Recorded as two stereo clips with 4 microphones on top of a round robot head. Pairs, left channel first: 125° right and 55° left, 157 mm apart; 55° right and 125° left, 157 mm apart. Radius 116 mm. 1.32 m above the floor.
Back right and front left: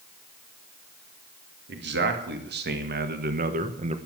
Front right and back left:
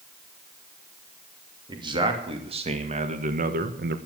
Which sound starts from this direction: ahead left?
A man speaking, at 1.7 s.